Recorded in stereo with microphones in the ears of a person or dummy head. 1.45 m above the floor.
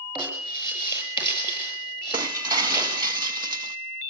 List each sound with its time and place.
0.1 s writing: 15° right (ahead or behind), 8.5 m
2.1 s breaking glass: 20° right (ahead or behind), 1.2 m